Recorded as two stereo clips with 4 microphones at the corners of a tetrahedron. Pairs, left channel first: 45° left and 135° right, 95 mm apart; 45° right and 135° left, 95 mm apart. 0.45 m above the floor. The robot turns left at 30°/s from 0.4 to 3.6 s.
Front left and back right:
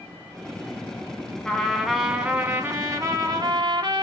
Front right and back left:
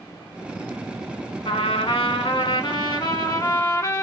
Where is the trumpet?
35° right, 0.6 m; by 4.0 s 100° right, 0.6 m.